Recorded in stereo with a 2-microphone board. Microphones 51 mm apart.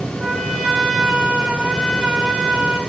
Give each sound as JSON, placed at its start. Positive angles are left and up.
{"t": 0.2, "sound": "a trumpet", "side_deg": -5, "distance_m": 8.0}